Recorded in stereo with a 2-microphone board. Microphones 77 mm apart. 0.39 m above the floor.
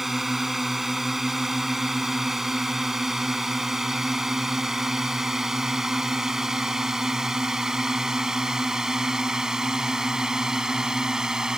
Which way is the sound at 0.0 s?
5° right (ahead or behind).